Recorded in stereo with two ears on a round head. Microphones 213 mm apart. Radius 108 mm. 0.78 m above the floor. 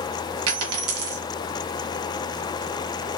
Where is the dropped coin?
70° right (ahead or behind), 1.7 m.